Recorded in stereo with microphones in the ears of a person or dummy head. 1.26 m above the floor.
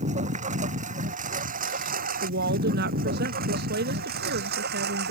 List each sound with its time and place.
0.0 s a lawn mower: 40° right (ahead or behind); by 5.1 s 60° right (ahead or behind)
2.2 s a woman speaking: 60° right (ahead or behind)